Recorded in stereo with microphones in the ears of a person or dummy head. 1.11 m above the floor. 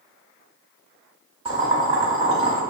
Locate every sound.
1.4 s boiling: 35° right (ahead or behind), 1.1 m